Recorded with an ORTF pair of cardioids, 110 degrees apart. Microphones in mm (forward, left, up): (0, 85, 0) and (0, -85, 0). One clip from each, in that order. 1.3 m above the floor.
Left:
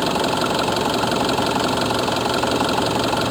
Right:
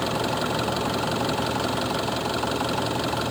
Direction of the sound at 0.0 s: 35° left.